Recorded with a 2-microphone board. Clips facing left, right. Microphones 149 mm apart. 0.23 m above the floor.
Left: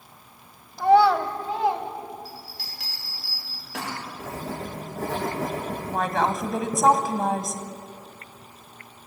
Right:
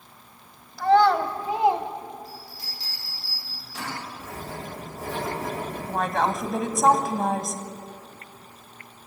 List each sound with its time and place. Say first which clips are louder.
0.8 s a child speaking: left 1 dB; 20° left (ahead or behind), 1.0 m; by 1.9 s 25° right (ahead or behind), 1.5 m
2.2 s a bell: even; 85° left, 8 m
4.2 s writing: left 3 dB; 85° left, 7.5 m
5.9 s a woman speaking: even; 5° left (ahead or behind), 1.7 m